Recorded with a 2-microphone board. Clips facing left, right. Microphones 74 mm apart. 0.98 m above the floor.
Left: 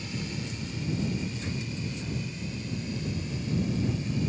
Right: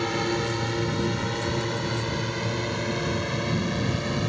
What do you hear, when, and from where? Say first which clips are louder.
0.0 s a drone: right 11 dB; 70° right (ahead or behind); by 4.3 s 75° right (ahead or behind)